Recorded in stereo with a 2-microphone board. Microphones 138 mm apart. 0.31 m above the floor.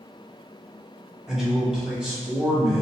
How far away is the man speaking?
About 1.5 m.